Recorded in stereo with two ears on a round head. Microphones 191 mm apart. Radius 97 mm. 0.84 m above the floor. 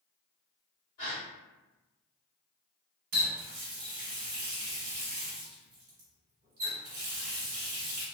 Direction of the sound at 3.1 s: 40° right (ahead or behind).